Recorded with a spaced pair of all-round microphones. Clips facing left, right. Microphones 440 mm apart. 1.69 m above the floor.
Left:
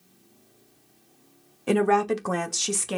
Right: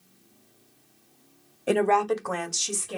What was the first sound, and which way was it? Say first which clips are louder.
A woman speaking: left 1 dB; 15° left (ahead or behind).